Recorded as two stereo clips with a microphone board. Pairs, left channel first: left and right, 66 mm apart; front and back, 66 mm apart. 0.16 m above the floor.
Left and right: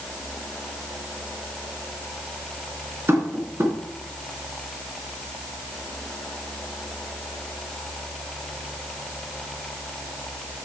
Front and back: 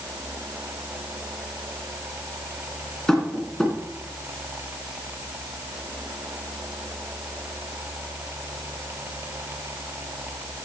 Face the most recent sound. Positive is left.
turn(degrees=-75)